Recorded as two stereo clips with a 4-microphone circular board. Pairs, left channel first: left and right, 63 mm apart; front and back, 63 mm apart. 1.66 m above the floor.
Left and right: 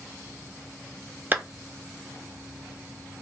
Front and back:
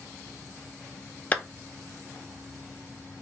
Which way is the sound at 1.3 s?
50° right.